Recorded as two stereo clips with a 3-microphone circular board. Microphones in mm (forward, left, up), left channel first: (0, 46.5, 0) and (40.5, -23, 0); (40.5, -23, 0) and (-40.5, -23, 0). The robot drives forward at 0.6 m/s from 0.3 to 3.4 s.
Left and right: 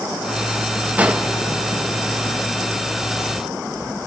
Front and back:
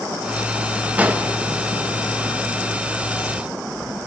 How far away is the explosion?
About 1.0 m.